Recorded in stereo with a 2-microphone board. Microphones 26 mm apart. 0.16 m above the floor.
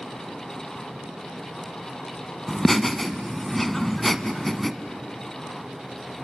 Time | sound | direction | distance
2.5 | laughter | 10° left (ahead or behind) | 1.0 m